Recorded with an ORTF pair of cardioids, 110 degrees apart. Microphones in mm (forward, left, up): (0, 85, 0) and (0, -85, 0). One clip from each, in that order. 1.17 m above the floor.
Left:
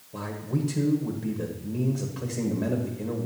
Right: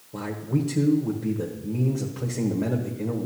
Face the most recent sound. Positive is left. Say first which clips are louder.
# right 3 dB
turn(degrees=-15)